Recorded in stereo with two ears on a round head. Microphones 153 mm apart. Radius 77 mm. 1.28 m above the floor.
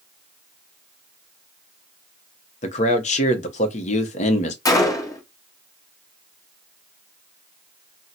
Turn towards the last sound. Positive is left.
turn(degrees=20)  # may be behind; listen again after turning